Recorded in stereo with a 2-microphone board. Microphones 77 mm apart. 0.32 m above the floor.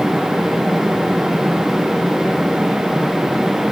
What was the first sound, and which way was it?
Only background noise.